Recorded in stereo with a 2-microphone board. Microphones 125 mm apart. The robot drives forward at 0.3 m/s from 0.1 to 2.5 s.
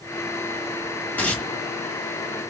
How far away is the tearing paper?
About 1.6 m.